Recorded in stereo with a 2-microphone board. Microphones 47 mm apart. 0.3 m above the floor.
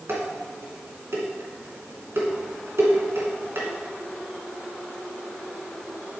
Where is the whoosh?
No whoosh in this recording.